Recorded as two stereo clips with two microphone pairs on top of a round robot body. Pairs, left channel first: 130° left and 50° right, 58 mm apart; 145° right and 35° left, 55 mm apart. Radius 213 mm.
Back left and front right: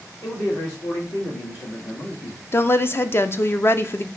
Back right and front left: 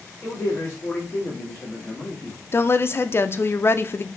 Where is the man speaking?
155° left, 1.9 m.